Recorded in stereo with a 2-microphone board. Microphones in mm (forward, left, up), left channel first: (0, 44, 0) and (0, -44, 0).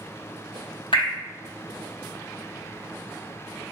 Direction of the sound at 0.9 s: 80° left.